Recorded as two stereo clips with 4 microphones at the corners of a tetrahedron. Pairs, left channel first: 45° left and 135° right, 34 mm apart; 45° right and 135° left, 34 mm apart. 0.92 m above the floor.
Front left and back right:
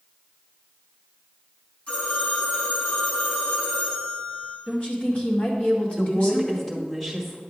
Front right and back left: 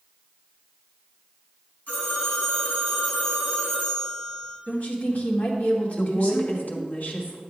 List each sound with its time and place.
1.9 s a phone ringing: 5° right, 4 m
4.7 s a woman speaking: straight ahead, 1.9 m
6.0 s a woman speaking: 30° right, 1.8 m